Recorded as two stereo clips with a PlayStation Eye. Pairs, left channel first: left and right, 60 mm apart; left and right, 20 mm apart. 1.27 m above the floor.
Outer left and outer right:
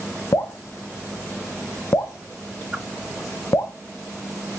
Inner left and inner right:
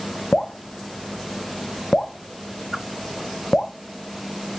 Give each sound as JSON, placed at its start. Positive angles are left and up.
{"t": 0.3, "sound": "dripping", "side_deg": 65, "distance_m": 1.2}
{"t": 2.7, "sound": "a whoosh", "side_deg": -5, "distance_m": 1.7}